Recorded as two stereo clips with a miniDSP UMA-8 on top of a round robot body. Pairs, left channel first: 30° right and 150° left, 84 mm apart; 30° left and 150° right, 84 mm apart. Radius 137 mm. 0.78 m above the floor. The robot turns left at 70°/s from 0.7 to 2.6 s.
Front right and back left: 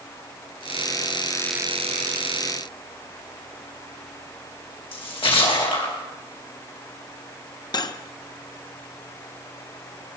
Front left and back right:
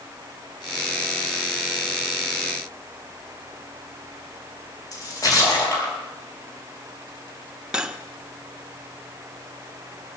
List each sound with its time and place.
4.9 s a splash: 20° right, 6 m
7.7 s cutlery clinking: 70° right, 1.1 m